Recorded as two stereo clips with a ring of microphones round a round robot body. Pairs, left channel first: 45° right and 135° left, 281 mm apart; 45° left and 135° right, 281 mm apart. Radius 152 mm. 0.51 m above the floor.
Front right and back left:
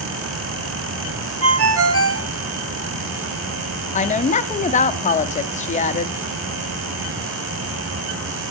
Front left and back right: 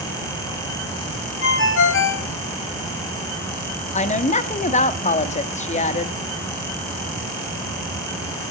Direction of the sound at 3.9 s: Straight ahead.